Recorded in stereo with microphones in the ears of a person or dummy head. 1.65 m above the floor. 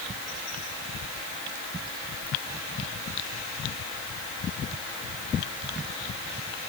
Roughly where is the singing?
No singing in this recording.